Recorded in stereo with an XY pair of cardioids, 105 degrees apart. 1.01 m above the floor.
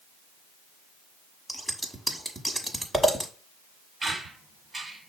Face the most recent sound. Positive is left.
turn(degrees=-25)